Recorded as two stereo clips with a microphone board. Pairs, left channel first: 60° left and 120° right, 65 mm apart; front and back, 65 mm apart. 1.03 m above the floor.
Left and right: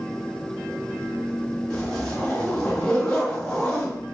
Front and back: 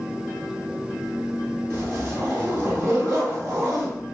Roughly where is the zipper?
Behind left.